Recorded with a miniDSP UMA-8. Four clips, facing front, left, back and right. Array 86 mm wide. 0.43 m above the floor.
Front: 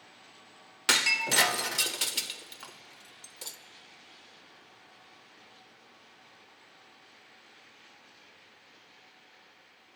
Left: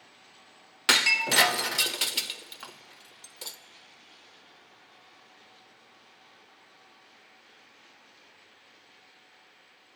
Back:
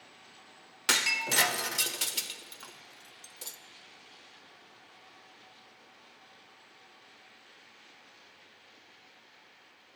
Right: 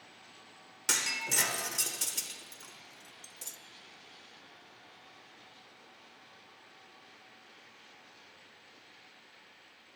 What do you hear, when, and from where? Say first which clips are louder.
0.9 s breaking glass: left 11 dB, front 2 dB; 80° left, 0.5 m